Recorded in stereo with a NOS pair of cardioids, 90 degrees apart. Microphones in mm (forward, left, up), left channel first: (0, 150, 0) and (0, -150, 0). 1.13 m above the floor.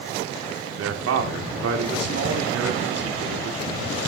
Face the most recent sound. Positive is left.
turn(degrees=-60)